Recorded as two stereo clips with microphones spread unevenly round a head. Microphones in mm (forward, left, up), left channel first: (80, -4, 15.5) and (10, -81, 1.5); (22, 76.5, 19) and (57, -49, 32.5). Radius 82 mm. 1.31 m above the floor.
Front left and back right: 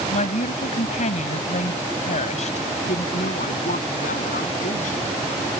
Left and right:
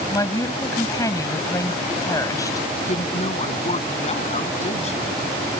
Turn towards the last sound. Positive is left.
turn(degrees=65)